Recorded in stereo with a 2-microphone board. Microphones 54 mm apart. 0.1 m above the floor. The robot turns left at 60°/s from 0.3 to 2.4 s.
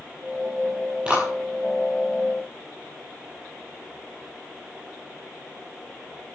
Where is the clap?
20° right (ahead or behind), 9.5 m; by 1.3 s 5° right (ahead or behind), 9.5 m.